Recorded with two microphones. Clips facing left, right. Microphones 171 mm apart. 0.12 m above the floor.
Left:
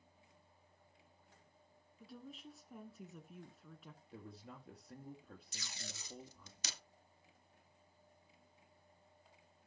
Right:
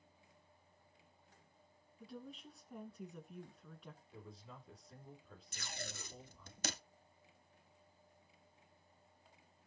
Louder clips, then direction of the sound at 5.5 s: Right 7 dB; 55° right (ahead or behind).